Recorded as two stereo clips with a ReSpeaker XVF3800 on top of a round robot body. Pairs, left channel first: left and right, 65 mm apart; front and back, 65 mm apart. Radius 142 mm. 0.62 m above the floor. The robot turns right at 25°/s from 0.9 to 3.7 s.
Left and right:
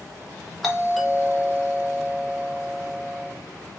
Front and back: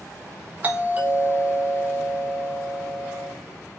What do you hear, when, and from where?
0.6 s a doorbell: 175° left, 1.4 m; by 3.3 s 125° right, 1.4 m